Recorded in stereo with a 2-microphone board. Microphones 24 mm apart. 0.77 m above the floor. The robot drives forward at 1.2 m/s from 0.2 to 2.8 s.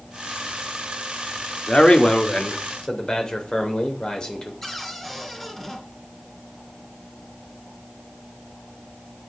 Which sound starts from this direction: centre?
A cupboard door, at 4.6 s.